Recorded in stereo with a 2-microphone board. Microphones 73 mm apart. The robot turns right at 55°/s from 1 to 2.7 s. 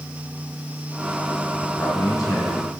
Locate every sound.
1.6 s a man speaking: 30° left, 4 m; by 2.7 s 85° left, 4 m